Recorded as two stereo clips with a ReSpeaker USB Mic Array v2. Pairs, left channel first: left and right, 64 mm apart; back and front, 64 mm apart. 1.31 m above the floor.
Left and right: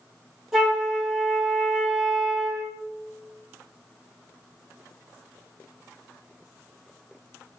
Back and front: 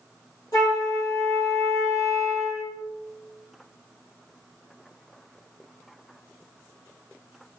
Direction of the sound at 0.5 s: 175° right.